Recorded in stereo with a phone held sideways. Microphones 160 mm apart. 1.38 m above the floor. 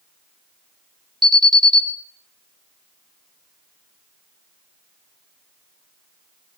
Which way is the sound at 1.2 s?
25° right (ahead or behind).